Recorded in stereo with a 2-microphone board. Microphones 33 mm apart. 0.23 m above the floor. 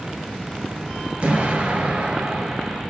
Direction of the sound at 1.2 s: 35° right (ahead or behind).